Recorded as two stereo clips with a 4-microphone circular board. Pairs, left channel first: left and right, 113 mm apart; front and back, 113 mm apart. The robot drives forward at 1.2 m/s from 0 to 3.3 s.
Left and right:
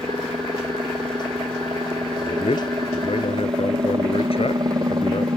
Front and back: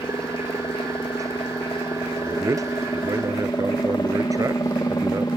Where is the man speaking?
115° left; by 5.3 s 120° left.